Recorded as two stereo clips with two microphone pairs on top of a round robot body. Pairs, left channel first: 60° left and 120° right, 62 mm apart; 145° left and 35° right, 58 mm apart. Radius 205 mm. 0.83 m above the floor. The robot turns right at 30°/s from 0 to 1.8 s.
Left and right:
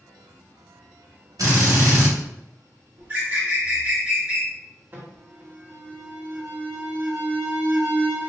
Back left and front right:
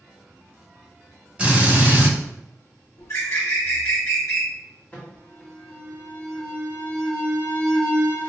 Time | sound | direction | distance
1.4 | a drill | 110° right | 1.6 m
3.0 | a bird | 175° left | 1.6 m
4.9 | an alarm | 165° right | 1.8 m